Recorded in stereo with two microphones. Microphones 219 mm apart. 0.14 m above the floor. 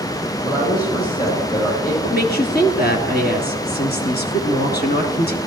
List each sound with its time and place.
0.4 s a woman speaking: 40° left (ahead or behind), 6.5 m
2.0 s a woman speaking: 45° left (ahead or behind), 2 m